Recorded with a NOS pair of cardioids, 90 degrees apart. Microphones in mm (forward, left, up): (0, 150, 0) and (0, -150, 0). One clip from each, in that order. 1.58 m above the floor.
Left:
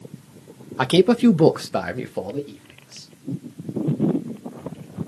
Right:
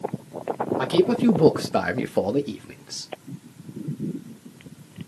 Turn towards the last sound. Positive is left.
turn(degrees=-55)